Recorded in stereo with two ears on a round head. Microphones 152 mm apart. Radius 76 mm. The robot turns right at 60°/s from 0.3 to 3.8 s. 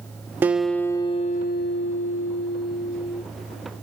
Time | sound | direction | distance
0.4 | a guitar | 10° right | 0.9 m